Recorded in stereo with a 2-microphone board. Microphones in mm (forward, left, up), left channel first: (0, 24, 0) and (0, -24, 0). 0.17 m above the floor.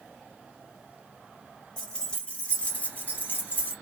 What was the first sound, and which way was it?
Keys jangling, 10° left (ahead or behind).